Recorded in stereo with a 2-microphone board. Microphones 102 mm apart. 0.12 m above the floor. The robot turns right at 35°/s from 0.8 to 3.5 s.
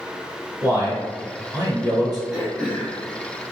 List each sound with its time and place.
0.6 s a man speaking: 145° right, 1.5 m; by 2.2 s 95° right, 1.5 m
2.3 s throat clearing: centre (ahead or behind), 1.1 m; by 3.5 s 25° left (ahead or behind), 1.1 m